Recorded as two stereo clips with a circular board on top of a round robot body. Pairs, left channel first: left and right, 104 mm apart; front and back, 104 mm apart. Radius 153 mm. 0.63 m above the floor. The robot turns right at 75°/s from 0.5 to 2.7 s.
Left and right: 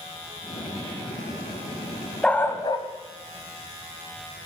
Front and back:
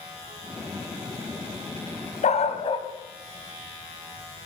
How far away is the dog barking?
About 1.9 m.